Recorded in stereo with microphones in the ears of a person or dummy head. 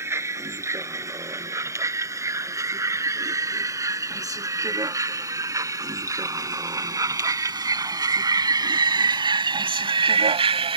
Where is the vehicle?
15° right (ahead or behind); by 10.8 s 30° right (ahead or behind).